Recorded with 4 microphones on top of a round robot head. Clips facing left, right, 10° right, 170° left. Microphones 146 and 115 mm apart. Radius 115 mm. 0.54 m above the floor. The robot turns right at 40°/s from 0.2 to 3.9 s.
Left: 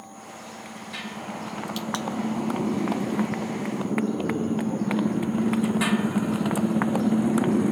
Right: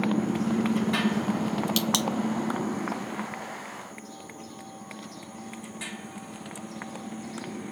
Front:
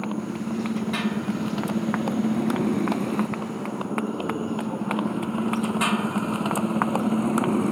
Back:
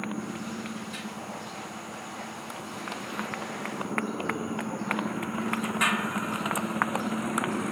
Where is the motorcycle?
75° right; by 7.7 s 50° left.